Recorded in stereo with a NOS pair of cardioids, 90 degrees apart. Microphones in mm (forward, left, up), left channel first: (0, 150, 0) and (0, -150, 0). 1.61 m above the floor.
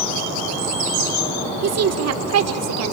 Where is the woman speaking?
55° right, 1.9 m.